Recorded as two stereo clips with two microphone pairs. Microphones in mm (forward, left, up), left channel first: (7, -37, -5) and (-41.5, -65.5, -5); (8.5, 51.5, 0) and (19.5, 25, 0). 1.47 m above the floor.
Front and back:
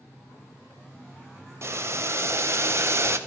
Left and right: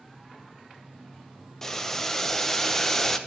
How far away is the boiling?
About 0.8 m.